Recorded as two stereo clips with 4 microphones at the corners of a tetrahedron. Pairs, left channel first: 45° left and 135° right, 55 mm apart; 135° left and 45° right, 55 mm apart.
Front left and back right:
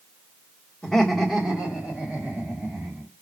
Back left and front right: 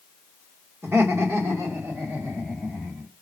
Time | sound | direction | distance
0.8 | laughter | 30° right | 1.4 m